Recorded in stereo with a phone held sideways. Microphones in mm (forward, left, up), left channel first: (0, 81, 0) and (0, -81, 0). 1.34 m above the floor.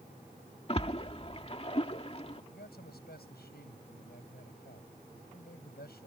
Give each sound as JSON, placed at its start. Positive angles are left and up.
{"t": 0.7, "sound": "a splash", "side_deg": 40}
{"t": 2.5, "sound": "a man speaking", "side_deg": 80}